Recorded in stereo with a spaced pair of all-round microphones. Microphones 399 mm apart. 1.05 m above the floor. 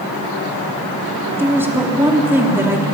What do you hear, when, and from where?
1.4 s a woman speaking: 5° right (ahead or behind), 3 m